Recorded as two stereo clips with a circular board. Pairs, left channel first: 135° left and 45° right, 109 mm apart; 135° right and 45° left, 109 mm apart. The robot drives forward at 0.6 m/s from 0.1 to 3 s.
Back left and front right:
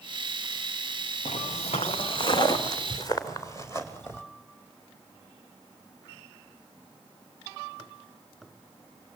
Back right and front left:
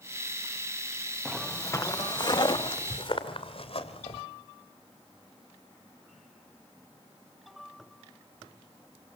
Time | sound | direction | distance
1.2 | footsteps | 140° left | 1.3 m